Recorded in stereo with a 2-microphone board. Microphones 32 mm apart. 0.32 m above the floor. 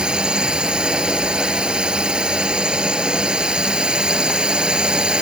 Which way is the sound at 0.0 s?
30° right (ahead or behind).